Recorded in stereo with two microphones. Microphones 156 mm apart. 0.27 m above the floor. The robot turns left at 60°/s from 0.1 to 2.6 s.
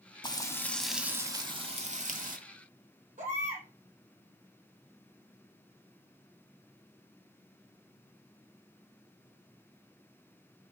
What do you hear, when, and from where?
0.2 s frying: 40° left, 1.0 m; by 2.4 s 90° right, 1.0 m
3.2 s a baby crying: 55° right (ahead or behind), 3.5 m